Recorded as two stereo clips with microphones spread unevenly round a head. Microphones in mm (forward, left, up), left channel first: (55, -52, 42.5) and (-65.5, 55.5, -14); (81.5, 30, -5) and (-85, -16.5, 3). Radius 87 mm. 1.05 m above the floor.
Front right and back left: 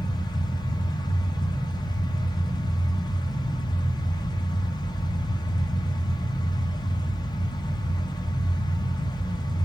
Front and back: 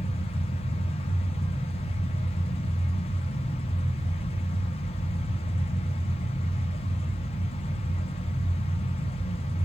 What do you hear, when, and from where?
0.0 s a fan: 35° left, 0.9 m